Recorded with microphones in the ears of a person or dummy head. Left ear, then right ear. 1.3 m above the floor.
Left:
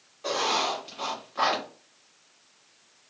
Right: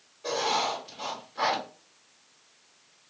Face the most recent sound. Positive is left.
turn(degrees=25)  # may be behind; listen again after turning